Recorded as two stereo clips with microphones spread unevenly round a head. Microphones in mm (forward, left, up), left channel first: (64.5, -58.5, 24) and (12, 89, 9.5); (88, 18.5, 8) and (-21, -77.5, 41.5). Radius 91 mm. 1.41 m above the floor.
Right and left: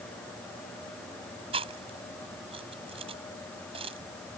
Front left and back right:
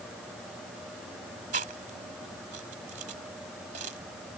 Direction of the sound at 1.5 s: 175° left.